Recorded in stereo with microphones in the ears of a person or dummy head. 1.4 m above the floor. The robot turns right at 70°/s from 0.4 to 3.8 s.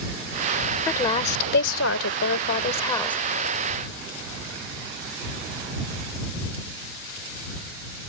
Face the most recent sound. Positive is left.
turn(degrees=-140)